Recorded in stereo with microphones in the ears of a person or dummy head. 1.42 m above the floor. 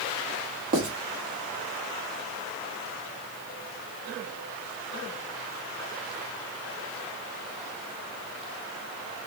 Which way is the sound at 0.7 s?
50° right (ahead or behind).